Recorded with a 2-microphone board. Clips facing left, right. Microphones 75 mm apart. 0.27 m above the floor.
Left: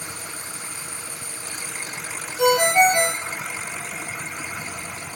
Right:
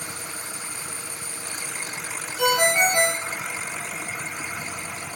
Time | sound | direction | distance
2.4 | a ringtone | 30° left (ahead or behind) | 5 m